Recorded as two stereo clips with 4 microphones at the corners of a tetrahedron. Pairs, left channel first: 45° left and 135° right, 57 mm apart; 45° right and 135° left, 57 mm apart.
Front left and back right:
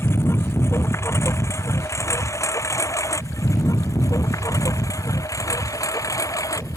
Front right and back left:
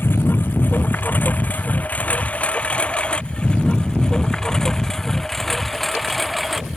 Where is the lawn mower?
5° left; by 6.8 s 45° left.